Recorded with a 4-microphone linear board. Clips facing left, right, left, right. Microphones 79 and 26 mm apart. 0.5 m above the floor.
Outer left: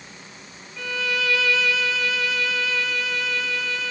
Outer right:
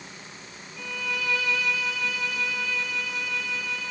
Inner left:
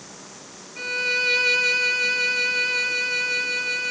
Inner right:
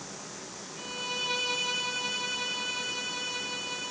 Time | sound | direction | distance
0.8 | a violin | 80° left | 2.5 m